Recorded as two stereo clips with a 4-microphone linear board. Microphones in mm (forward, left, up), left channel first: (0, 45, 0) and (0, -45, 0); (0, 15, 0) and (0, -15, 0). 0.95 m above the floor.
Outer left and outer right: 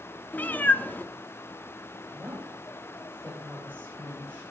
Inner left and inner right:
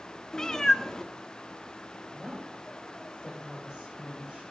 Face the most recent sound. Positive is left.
turn(degrees=-25)  # may be behind; listen again after turning